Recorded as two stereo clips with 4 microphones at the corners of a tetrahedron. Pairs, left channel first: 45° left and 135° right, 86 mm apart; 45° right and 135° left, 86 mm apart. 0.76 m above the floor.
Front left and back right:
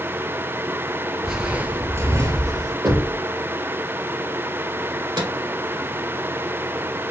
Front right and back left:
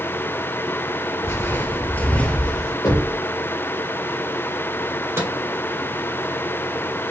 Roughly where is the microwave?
Behind.